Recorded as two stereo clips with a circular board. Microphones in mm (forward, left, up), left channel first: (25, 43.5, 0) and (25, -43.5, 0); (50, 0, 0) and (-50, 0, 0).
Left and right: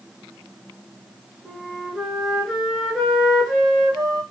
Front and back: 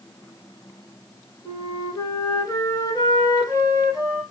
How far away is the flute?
About 0.9 m.